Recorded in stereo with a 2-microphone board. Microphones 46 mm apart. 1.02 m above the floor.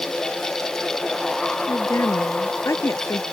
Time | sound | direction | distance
1.7 | a woman speaking | 75° left (ahead or behind) | ?